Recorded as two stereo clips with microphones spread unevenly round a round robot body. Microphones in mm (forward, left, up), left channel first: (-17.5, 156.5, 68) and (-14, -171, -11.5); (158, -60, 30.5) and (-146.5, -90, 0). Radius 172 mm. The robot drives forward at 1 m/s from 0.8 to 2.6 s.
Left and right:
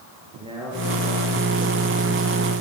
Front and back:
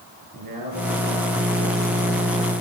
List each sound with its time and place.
0.3 s a man speaking: 165° right, 8 m